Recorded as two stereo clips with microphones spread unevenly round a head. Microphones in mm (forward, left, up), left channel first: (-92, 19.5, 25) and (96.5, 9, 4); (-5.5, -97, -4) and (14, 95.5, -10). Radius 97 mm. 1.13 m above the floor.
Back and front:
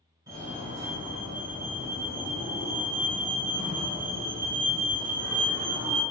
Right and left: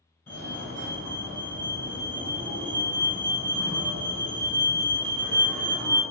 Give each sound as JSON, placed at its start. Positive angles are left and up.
{"t": 0.3, "sound": "a fire alarm", "azimuth_deg": -30, "distance_m": 1.0}